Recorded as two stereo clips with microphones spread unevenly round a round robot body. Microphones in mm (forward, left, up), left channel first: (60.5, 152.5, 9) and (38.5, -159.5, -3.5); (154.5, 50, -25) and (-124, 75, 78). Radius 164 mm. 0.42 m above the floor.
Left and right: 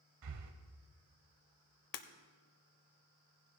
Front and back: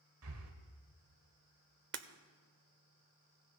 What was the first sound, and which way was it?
Breathing, 135° right.